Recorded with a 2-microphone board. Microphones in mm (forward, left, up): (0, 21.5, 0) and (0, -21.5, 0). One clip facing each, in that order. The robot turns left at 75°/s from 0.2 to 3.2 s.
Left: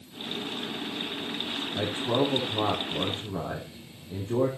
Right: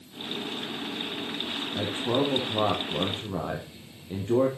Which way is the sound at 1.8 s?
10° right.